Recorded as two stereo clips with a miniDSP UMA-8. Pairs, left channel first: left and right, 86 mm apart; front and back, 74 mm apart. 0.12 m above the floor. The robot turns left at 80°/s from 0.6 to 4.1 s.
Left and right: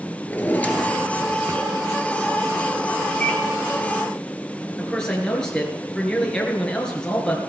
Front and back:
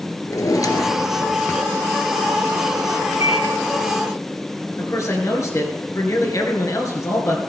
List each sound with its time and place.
0.3 s a drawer: 25° left, 0.9 m; by 1.6 s 60° right, 0.9 m
3.2 s a microwave: 165° left, 1.8 m; by 3.4 s 145° left, 1.8 m
4.8 s a man speaking: 10° left, 2 m